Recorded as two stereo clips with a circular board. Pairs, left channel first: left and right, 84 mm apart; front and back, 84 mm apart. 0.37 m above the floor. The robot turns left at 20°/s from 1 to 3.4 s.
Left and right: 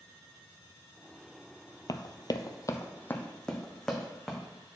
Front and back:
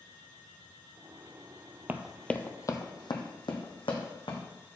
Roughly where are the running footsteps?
Behind left.